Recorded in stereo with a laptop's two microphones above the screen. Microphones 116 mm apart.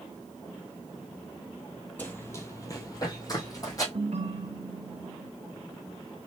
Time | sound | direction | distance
2.0 | running footsteps | 15° left (ahead or behind) | 1.3 m
3.9 | a ringtone | 65° right (ahead or behind) | 0.7 m